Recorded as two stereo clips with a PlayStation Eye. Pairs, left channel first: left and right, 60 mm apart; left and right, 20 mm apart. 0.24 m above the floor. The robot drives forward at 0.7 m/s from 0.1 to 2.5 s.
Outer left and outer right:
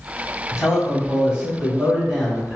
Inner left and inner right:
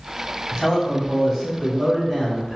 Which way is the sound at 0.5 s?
15° right (ahead or behind).